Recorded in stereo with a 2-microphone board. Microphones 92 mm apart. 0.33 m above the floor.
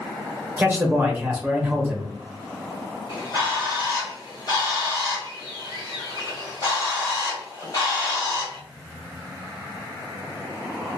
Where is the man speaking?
20° right (ahead or behind), 0.9 m.